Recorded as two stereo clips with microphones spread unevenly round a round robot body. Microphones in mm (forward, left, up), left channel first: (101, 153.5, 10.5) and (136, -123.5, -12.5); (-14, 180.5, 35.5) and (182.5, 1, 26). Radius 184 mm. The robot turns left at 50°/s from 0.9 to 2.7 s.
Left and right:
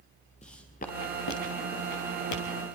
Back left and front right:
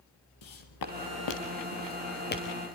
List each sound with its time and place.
0.4 s footsteps: 170° left, 3 m; by 2.8 s 60° left, 3.5 m